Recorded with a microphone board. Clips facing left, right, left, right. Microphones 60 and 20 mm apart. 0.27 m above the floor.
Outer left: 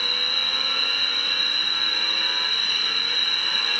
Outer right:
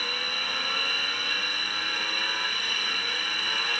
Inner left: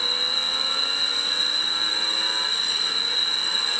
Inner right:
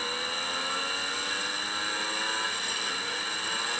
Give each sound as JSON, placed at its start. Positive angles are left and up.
{"t": 0.0, "sound": "an insect", "side_deg": 80, "distance_m": 0.9}